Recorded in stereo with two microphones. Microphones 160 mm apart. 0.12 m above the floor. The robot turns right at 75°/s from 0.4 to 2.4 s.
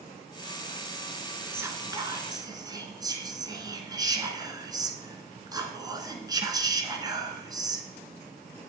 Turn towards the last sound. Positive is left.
turn(degrees=-25)  # may be behind; listen again after turning